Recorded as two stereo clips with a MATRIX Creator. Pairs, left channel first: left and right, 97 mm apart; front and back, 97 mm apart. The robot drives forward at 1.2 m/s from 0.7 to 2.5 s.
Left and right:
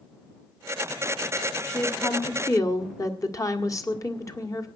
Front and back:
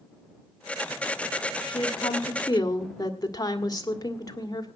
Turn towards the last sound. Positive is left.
turn(degrees=40)